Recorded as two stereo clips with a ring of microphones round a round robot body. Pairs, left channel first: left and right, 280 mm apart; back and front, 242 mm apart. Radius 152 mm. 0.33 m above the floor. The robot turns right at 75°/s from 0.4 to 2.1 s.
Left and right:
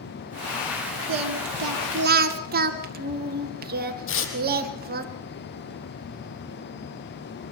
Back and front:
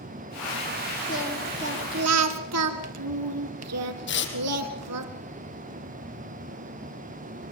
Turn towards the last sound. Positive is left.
turn(degrees=135)